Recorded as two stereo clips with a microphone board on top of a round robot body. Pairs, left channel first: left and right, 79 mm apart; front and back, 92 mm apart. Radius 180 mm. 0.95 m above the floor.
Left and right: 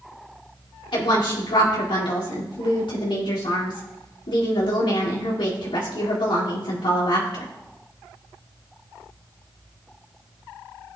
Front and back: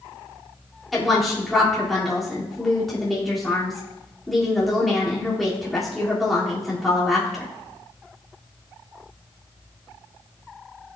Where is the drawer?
I don't hear a drawer.